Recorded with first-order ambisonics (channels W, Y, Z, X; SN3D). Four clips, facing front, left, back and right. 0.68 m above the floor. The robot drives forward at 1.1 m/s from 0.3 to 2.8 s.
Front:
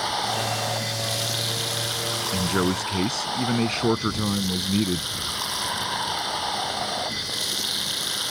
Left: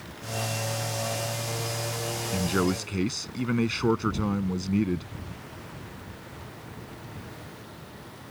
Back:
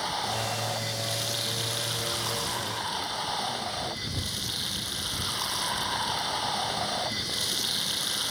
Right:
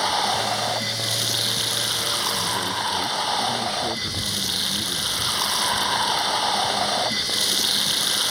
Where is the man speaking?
30° left.